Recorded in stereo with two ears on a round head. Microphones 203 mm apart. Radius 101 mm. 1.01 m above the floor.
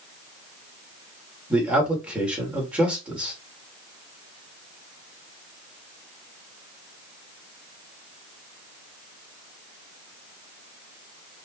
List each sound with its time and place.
1.5 s a man speaking: 5° right (ahead or behind), 2.5 m